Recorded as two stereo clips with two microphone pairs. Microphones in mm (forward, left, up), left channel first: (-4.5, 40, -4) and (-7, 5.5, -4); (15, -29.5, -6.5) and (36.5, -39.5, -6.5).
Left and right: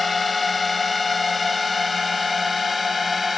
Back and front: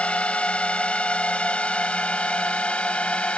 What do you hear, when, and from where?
0.0 s a drone: 175° left; by 3.4 s straight behind